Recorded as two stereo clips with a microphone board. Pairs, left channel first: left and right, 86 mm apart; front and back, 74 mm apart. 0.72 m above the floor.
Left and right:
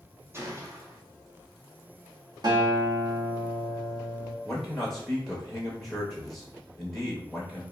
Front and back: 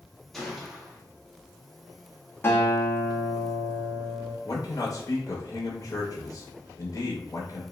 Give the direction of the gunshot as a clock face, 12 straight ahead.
3 o'clock.